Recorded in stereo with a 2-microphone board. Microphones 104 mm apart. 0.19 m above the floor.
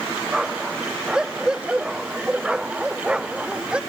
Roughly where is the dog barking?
Centre.